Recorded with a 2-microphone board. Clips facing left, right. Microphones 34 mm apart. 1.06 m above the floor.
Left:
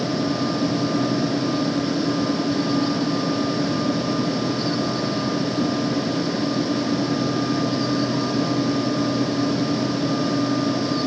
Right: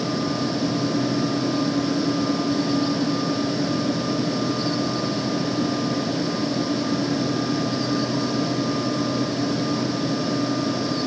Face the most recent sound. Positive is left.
No sound to turn to.